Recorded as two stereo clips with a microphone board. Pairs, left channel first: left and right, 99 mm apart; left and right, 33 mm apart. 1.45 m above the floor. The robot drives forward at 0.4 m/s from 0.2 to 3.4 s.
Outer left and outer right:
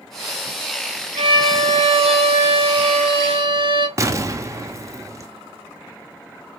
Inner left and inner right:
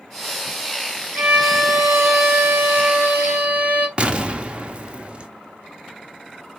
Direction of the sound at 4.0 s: 30° right (ahead or behind).